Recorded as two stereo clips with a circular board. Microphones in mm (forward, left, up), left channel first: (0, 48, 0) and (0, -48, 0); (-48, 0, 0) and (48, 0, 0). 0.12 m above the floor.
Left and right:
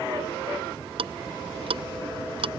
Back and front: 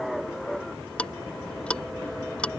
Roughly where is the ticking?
Right.